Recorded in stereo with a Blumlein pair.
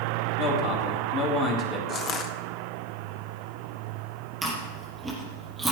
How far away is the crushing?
About 1.2 m.